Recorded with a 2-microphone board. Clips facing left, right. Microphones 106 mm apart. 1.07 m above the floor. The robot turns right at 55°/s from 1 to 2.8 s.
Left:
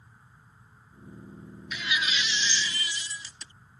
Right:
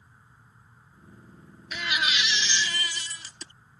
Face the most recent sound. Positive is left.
turn(degrees=-65)